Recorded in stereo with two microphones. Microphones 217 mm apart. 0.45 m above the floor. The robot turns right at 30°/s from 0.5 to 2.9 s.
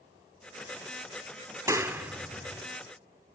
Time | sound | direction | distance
1.7 | a clap | 15° right (ahead or behind) | 0.7 m